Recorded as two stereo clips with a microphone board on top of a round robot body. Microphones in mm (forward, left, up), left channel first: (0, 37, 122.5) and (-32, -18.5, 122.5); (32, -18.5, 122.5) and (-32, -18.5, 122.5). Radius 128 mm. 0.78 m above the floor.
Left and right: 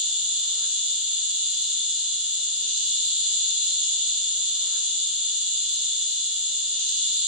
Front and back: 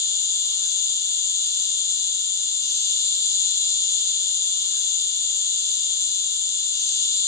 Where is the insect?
45° right, 4 m.